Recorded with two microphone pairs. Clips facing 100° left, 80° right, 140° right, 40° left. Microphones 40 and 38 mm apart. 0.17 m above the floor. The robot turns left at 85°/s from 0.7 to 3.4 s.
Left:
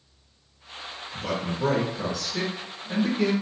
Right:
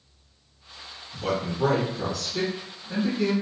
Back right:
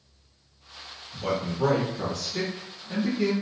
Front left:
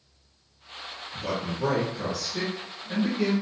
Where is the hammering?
I don't hear hammering.